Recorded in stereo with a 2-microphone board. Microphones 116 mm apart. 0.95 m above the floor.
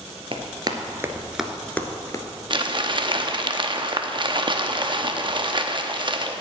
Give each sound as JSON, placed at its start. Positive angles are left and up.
{"t": 0.3, "sound": "running footsteps", "side_deg": -45, "distance_m": 1.3}
{"t": 2.5, "sound": "crumpling", "side_deg": -40, "distance_m": 0.7}